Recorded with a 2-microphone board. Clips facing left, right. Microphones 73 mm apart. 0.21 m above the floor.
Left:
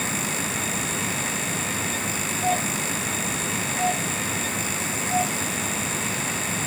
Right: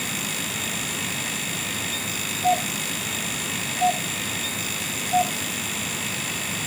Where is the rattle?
I don't hear a rattle.